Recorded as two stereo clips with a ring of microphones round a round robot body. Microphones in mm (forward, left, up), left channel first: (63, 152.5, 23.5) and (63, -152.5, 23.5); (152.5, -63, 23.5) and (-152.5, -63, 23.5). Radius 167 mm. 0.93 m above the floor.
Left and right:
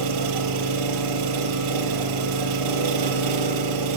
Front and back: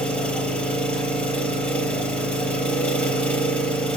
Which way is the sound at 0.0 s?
85° right.